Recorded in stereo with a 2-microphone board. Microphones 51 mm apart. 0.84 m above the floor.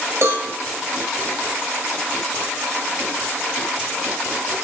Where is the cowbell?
55° right (ahead or behind), 1.2 m.